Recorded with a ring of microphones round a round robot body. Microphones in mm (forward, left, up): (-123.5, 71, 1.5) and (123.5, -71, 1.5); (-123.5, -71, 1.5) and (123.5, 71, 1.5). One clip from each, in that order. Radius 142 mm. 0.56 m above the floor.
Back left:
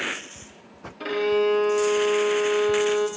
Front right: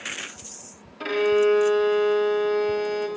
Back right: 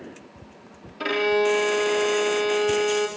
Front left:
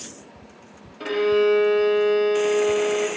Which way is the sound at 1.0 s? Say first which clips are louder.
Front right 2 dB, front left 2 dB; 105° right.